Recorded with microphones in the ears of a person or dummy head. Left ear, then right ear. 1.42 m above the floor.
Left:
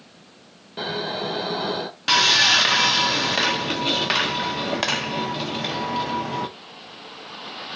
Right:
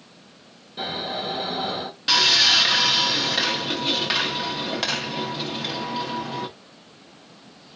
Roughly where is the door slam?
I don't hear a door slam.